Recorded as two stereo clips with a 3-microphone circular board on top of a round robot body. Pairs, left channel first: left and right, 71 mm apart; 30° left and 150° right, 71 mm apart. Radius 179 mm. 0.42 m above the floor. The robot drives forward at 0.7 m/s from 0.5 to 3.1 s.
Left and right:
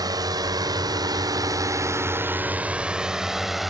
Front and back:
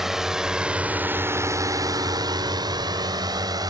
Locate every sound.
0.0 s a drone: 65° right; by 3.7 s 175° right